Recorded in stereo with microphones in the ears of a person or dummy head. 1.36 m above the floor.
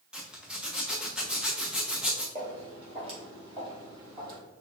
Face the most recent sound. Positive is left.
turn(degrees=-30)  # may be behind; listen again after turning